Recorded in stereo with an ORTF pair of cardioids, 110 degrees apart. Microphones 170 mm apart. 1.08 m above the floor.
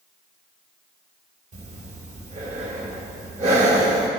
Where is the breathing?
45° right, 2.5 m.